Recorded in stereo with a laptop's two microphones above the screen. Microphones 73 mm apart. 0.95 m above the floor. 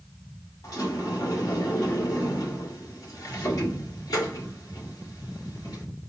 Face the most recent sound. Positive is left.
turn(degrees=55)  # may be behind; listen again after turning